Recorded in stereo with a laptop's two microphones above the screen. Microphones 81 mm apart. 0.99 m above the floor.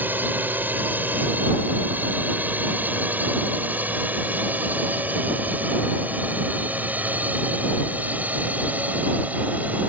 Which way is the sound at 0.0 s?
25° right (ahead or behind).